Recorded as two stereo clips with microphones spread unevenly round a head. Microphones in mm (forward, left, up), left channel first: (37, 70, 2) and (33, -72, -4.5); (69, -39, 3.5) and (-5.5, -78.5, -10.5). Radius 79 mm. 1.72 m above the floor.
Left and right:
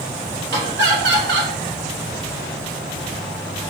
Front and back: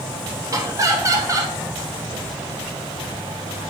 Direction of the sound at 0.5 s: 100° right.